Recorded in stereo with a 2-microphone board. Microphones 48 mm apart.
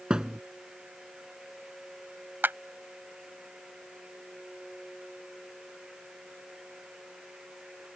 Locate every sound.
0.1 s a thud: 15° right (ahead or behind)
2.4 s a clap: 45° right (ahead or behind)